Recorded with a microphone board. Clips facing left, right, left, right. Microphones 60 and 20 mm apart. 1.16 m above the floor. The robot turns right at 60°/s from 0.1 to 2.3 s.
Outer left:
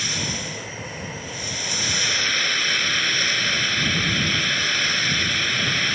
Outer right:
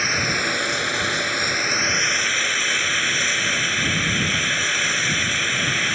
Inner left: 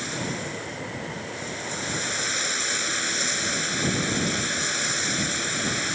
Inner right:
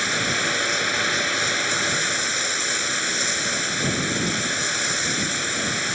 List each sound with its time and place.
0.0 s running water: 140° right; by 6.0 s 10° right